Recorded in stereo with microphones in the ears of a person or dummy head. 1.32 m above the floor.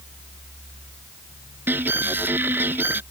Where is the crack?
I don't hear a crack.